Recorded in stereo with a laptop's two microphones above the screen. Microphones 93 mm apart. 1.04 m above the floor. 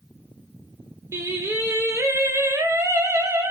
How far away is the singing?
About 0.5 m.